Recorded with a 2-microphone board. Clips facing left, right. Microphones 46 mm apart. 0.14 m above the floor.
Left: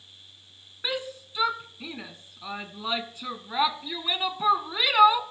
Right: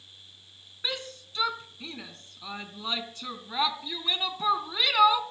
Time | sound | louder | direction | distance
0.8 | a shout | left 3 dB | 15° left (ahead or behind) | 1.1 m